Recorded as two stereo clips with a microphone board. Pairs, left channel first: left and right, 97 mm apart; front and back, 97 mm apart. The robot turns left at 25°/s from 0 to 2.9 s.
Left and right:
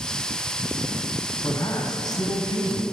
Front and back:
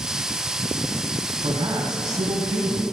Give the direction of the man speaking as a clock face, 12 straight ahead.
7 o'clock.